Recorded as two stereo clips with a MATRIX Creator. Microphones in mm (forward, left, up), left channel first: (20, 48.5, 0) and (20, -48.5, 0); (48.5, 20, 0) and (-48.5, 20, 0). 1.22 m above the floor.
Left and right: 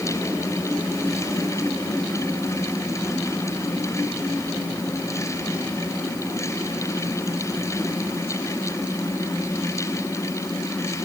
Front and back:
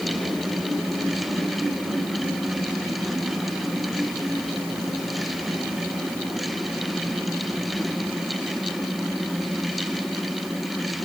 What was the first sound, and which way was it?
Only background noise.